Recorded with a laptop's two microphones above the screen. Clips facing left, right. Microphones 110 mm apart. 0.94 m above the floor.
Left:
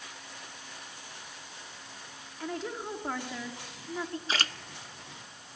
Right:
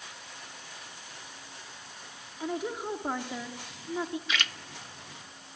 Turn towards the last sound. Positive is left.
turn(degrees=35)  # may be behind; listen again after turning